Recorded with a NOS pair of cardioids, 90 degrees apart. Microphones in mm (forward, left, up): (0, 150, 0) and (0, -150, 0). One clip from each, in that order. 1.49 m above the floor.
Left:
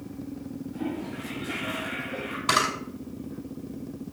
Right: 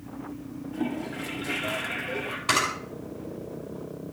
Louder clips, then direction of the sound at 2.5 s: Left 1 dB; 5° right.